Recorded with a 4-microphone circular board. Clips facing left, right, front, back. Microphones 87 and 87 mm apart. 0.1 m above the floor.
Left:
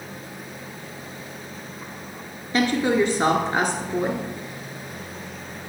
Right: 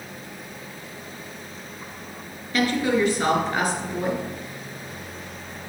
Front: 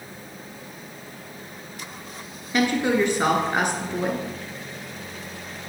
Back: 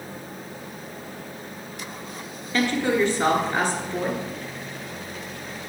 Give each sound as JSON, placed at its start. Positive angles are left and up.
{"t": 2.5, "sound": "a woman speaking", "azimuth_deg": 55, "distance_m": 1.3}